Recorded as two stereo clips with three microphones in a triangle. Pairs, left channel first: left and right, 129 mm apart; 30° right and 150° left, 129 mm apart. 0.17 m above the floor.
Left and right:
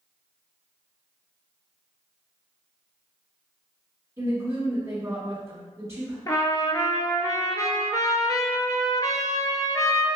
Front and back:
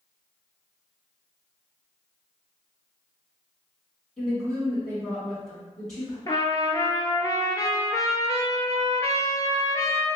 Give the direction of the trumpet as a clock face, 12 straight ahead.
11 o'clock.